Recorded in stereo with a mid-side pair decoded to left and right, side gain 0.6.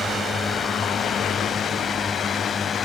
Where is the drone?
20° left; by 2.9 s 25° left.